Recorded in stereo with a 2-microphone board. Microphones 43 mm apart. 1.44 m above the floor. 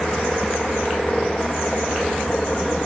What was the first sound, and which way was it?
A helicopter, 10° left (ahead or behind).